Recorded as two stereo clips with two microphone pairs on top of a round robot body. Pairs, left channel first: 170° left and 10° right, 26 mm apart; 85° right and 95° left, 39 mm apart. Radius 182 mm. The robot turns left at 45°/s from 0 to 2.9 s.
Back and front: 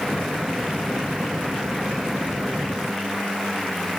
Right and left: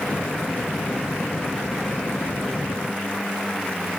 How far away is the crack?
No crack in this recording.